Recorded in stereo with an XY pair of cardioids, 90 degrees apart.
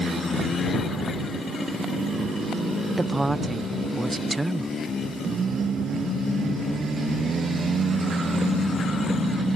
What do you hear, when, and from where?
3.0 s a woman speaking: 15° right